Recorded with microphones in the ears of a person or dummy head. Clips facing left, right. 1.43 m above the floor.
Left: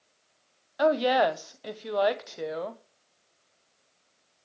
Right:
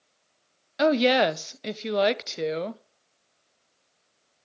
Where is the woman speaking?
30° right (ahead or behind), 0.9 m.